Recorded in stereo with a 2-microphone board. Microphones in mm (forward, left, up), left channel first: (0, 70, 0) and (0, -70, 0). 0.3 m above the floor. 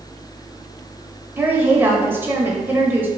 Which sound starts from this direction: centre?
A woman speaking, at 1.4 s.